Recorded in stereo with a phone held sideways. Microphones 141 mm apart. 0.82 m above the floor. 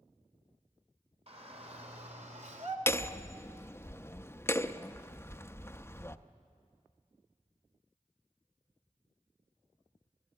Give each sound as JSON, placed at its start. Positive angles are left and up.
{"t": 1.3, "sound": "a shout", "side_deg": -45, "distance_m": 3.0}
{"t": 2.9, "sound": "hammering", "side_deg": 20, "distance_m": 0.5}